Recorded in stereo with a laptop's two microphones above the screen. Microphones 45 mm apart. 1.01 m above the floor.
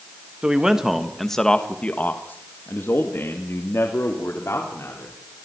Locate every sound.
0.4 s a man speaking: 15° right (ahead or behind), 1.7 m; by 5.2 s 80° left, 3.5 m